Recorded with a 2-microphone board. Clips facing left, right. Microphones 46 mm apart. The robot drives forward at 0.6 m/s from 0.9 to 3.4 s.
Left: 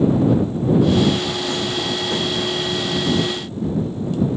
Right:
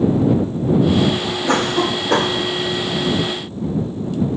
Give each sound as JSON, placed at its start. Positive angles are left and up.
{"t": 1.5, "sound": "a cough", "side_deg": -70}